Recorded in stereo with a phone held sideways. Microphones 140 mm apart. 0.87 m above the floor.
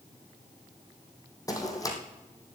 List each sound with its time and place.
1.5 s running footsteps: 25° left (ahead or behind), 2 m